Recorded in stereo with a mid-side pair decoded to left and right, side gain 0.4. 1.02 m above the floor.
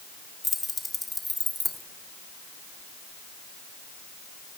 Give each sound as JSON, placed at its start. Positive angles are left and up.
{"t": 0.4, "sound": "keys jangling", "azimuth_deg": 20, "distance_m": 1.5}